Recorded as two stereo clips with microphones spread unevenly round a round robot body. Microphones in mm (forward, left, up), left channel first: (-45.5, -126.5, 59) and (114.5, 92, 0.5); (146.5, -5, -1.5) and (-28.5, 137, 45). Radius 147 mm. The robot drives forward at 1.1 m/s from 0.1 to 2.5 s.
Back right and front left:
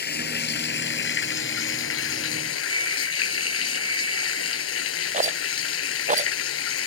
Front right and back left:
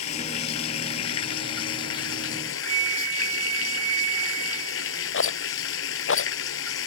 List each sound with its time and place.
0.0 s running water: 70° right; by 6.9 s 85° right
2.6 s a flute: 130° left
5.1 s a rattle: 10° right